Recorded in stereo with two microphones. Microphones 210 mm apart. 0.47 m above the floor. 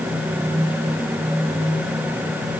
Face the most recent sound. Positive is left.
No sound to turn to.